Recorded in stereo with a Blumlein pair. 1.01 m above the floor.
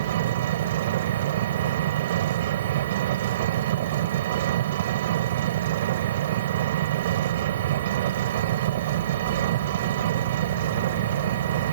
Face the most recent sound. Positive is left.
turn(degrees=-55)